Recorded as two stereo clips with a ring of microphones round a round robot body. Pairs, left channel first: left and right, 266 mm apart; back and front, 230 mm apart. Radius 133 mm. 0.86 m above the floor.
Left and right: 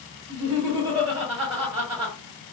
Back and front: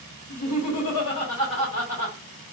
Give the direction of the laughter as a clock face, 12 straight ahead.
5 o'clock.